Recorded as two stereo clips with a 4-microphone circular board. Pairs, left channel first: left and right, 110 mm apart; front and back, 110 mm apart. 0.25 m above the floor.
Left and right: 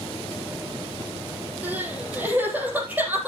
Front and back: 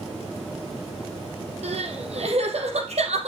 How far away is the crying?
About 3.5 m.